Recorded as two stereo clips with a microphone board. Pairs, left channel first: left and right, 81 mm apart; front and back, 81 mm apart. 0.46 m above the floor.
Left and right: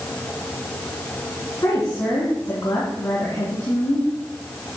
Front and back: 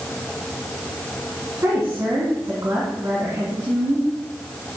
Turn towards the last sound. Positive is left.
turn(degrees=130)